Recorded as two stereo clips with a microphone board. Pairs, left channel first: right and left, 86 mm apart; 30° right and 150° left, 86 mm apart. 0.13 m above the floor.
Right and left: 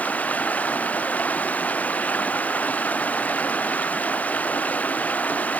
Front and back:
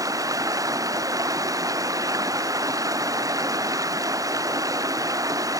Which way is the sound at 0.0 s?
160° right.